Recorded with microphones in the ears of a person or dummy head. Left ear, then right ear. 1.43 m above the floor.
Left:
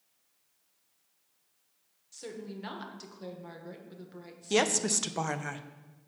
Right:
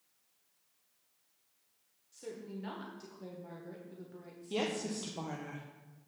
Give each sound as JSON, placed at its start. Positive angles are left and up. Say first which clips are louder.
{"t": 2.1, "sound": "a woman speaking", "louder": "left 3 dB", "side_deg": 25, "distance_m": 1.4}
{"t": 4.5, "sound": "a woman speaking", "louder": "left 9 dB", "side_deg": 60, "distance_m": 0.7}